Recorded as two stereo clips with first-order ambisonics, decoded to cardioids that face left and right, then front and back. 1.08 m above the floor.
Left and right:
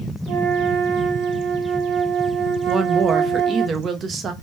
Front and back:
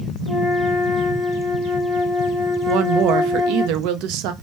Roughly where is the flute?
Right.